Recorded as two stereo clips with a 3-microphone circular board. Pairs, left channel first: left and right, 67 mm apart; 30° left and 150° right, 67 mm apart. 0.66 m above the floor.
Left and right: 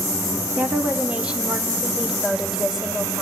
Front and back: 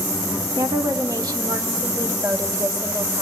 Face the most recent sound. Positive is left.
turn(degrees=-175)